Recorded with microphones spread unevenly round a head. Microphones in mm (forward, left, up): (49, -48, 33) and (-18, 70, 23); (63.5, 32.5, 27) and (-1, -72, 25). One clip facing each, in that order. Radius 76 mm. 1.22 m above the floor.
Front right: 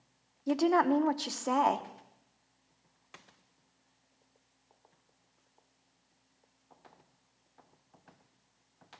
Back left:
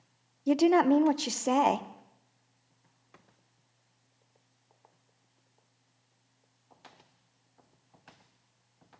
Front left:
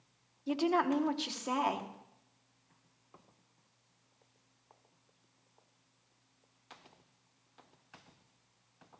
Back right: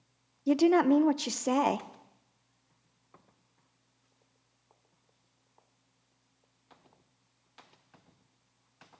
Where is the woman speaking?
170° right, 0.7 m.